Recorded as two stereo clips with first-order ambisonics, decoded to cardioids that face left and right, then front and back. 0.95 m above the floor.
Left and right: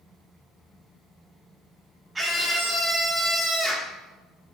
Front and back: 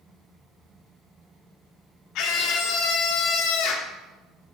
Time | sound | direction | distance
2.1 | a scream | 10° right | 0.9 m